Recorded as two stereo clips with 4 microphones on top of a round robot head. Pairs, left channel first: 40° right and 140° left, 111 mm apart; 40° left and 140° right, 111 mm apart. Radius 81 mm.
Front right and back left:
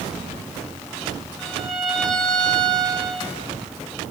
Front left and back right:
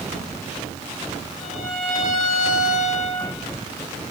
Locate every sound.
1.4 s a violin: 45° left, 7.5 m